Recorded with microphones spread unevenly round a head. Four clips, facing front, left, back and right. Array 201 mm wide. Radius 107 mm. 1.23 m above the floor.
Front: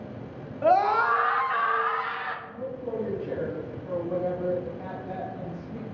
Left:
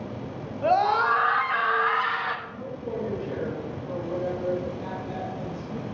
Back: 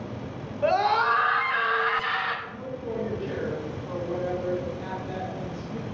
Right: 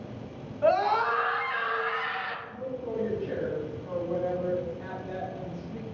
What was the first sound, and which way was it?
A scream, 20° left.